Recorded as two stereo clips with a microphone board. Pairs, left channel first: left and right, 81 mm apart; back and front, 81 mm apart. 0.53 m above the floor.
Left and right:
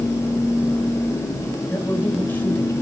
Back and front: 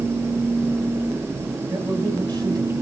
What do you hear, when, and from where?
1.7 s a man speaking: 25° left, 2.5 m